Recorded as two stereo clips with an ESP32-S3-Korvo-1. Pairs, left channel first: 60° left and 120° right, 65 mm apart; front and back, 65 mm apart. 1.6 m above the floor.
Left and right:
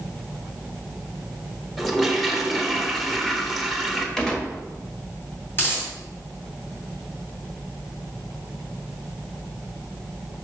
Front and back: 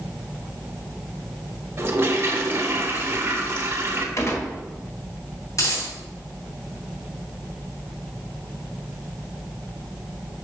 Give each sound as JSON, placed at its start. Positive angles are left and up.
{"t": 1.8, "sound": "a toilet flushing", "azimuth_deg": 150, "distance_m": 1.0}
{"t": 4.2, "sound": "a gunshot", "azimuth_deg": -15, "distance_m": 1.4}
{"t": 5.5, "sound": "a dropped coin", "azimuth_deg": 15, "distance_m": 2.5}